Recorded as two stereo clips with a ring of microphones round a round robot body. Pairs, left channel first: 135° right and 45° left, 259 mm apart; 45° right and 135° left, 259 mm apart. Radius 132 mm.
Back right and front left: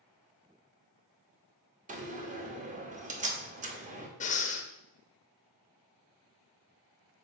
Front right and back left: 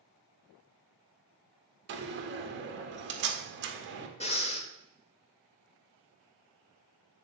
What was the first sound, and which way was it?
A door slam, 100° left.